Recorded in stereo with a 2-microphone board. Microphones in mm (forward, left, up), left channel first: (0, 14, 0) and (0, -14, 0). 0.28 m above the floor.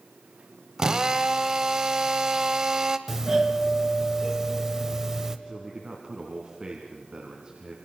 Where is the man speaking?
30° right (ahead or behind), 3 m.